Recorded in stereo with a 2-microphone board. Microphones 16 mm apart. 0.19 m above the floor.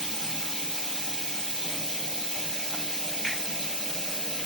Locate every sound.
0.0 s running water: 60° left (ahead or behind), 1.0 m
3.2 s a finger snap: 15° left (ahead or behind), 1.3 m